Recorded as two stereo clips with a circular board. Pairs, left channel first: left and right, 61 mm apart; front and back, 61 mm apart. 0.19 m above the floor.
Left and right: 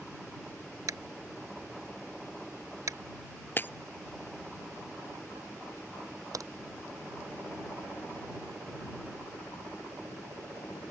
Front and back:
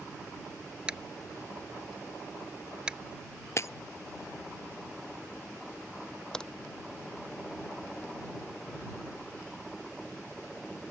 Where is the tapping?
105° right.